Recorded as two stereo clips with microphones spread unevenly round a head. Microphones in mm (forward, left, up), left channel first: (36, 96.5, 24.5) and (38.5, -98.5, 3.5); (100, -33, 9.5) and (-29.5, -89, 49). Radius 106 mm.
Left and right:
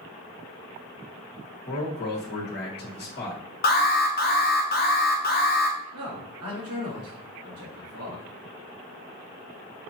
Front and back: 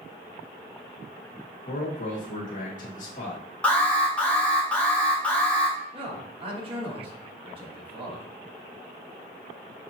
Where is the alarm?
85° left, 0.7 m.